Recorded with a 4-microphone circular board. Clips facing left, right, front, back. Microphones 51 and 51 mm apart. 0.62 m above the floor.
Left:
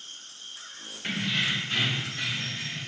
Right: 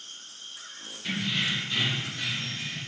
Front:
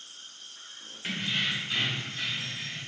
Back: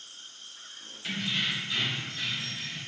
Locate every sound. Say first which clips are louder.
1.0 s keys jangling: left 1 dB, front 1 dB; 55° left, 1.2 m